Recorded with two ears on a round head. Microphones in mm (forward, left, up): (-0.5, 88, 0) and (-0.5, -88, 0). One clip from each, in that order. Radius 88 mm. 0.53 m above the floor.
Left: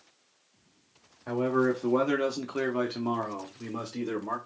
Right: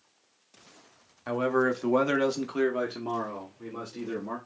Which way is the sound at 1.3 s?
45° right (ahead or behind).